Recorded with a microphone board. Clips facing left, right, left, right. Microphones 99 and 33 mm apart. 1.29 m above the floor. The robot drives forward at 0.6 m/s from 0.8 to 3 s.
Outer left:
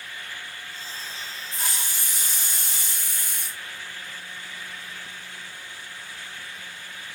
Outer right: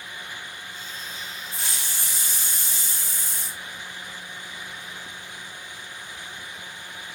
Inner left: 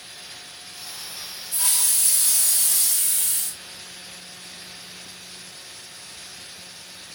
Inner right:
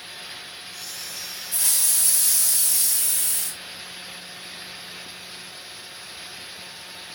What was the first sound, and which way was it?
A hiss, 45° left (ahead or behind).